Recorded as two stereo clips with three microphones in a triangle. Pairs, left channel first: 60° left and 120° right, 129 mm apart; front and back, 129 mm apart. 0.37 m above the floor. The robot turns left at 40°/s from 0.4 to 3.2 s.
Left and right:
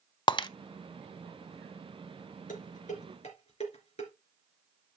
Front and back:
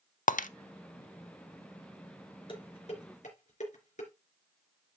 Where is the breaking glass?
5° left, 0.5 m; by 0.5 s straight ahead, 0.5 m.